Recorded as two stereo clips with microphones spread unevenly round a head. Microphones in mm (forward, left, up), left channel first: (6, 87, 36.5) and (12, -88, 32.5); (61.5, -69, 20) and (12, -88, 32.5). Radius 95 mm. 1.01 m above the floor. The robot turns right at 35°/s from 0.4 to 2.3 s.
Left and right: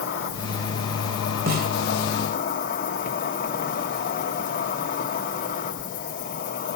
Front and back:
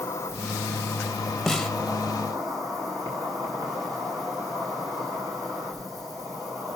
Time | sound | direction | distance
0.0 | an insect | 75° left | 1.6 m
1.5 | a snare drum | 65° right | 1.3 m